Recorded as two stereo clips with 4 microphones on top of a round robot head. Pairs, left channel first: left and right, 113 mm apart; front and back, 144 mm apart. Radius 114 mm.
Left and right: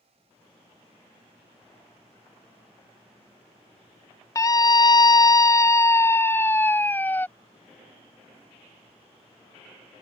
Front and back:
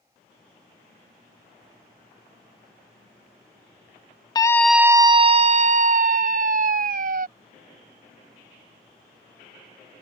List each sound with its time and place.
4.3 s a scream: 45° left; by 7.3 s 165° left